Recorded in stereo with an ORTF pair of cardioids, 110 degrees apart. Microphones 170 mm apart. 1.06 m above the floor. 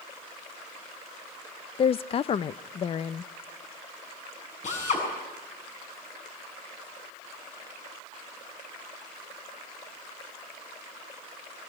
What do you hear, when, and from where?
1.8 s a woman speaking: 35° left, 0.5 m
4.6 s a drill: 45° left, 8 m